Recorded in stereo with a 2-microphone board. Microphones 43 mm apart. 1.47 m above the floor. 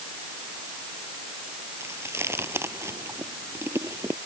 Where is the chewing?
85° right.